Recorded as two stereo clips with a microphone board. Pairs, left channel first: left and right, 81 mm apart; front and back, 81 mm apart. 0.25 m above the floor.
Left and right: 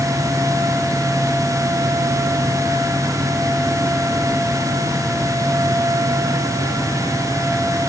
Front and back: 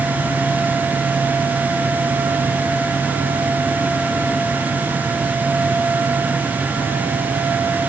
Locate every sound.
Only background noise.